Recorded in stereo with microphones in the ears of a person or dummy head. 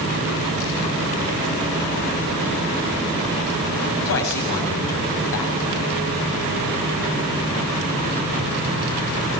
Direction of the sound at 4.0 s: 65° left (ahead or behind).